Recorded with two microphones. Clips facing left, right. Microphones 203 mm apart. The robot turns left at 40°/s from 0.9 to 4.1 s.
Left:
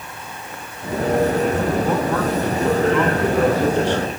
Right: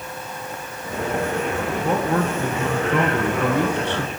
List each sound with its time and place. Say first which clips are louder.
1.8 s a man speaking: left 1 dB; 25° right, 3 m; by 4.1 s 115° right, 3 m